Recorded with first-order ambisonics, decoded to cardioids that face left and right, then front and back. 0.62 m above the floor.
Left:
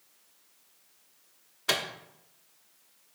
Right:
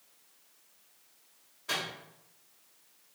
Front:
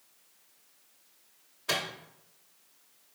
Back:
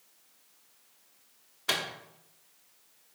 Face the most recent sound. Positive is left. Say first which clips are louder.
# left 5 dB, back 1 dB
turn(degrees=120)